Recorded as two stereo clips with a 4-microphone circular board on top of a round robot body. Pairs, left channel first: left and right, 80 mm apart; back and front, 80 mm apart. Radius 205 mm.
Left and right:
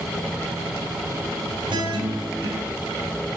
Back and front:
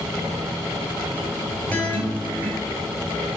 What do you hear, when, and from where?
1.7 s a guitar: 110° right, 2.5 m